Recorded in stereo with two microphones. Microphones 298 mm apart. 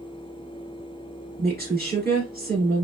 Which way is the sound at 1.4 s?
35° right (ahead or behind).